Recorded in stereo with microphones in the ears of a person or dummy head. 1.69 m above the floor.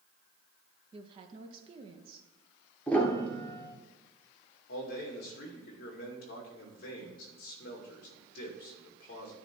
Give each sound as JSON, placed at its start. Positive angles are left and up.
{"t": 0.9, "sound": "a woman speaking", "side_deg": -30, "distance_m": 0.8}
{"t": 2.9, "sound": "a piano", "side_deg": 5, "distance_m": 1.0}
{"t": 4.7, "sound": "a man speaking", "side_deg": 60, "distance_m": 2.0}